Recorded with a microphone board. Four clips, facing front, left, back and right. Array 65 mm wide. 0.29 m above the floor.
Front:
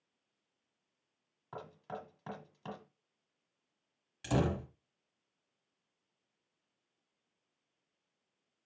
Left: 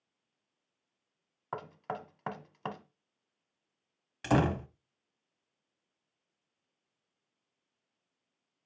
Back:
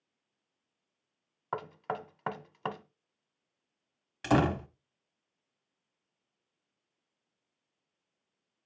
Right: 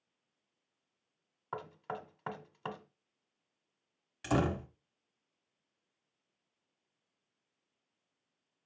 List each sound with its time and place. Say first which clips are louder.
1.5 s knocking: left 2 dB, back 9 dB; 165° left, 1.2 m
4.2 s a door slam: left 4 dB, back 6 dB; 150° left, 1.2 m